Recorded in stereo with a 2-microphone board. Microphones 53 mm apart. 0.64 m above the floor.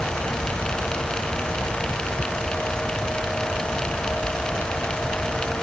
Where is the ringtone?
I don't hear a ringtone.